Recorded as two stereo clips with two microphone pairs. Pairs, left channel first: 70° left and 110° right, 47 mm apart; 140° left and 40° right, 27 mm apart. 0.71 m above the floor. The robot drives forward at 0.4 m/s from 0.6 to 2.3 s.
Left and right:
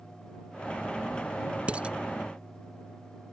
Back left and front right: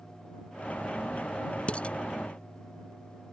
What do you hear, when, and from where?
1.7 s dishes clattering: straight behind